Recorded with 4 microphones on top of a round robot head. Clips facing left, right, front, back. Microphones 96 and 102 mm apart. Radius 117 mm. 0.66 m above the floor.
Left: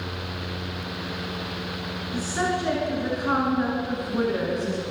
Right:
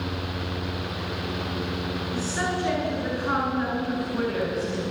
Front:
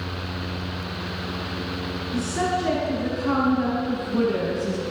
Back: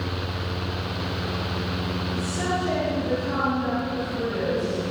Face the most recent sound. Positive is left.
turn(degrees=15)